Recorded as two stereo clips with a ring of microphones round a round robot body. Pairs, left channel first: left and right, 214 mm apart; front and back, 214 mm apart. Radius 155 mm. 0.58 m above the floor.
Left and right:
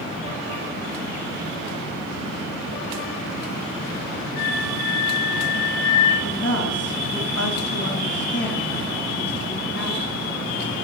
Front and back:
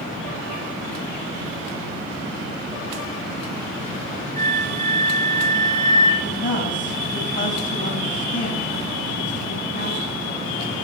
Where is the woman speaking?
55° left, 4.5 m.